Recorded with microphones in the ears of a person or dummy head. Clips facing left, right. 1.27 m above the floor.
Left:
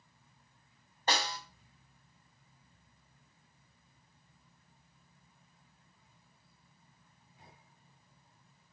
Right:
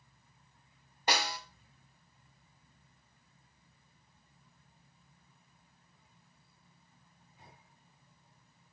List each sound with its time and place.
1.1 s a snare drum: 10° right (ahead or behind), 1.5 m